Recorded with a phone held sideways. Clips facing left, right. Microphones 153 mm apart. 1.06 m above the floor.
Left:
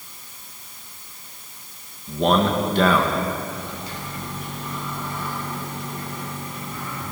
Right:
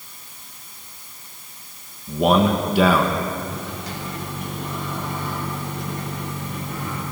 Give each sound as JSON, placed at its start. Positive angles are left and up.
{"t": 2.1, "sound": "a man speaking", "side_deg": -10, "distance_m": 1.2}
{"t": 3.5, "sound": "a microwave", "side_deg": -75, "distance_m": 2.5}